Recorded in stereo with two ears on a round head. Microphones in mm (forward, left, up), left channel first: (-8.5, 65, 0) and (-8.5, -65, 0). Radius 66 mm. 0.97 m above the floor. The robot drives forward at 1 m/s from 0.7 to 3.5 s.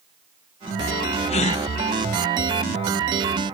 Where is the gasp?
40° left (ahead or behind), 0.9 m; by 1.6 s 55° left (ahead or behind), 0.7 m.